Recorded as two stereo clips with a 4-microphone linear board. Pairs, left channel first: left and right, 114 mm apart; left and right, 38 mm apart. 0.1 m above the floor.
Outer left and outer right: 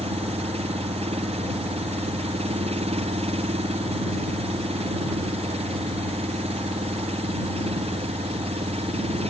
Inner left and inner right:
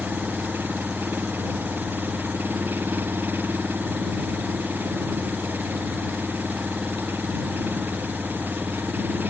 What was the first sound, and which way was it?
An engine running, 65° right (ahead or behind).